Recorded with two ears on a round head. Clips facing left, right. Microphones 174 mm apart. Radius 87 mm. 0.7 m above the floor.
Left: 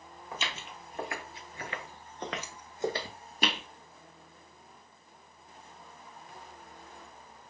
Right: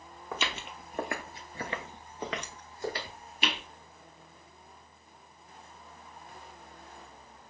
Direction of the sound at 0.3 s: 60° right (ahead or behind).